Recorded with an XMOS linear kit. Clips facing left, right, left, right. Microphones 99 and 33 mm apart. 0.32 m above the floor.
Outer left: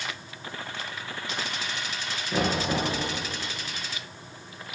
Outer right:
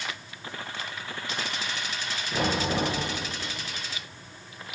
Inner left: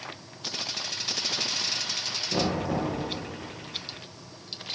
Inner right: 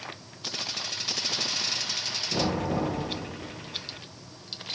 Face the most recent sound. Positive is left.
turn(degrees=15)  # may be behind; listen again after turning